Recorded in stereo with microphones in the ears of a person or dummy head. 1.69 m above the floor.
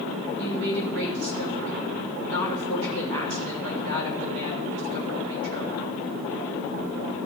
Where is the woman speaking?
70° right (ahead or behind), 3 m.